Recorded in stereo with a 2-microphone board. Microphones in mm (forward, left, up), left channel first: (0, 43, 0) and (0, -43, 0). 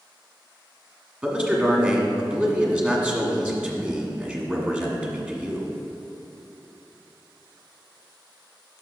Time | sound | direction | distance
1.2 | a man speaking | 15° right (ahead or behind) | 1.4 m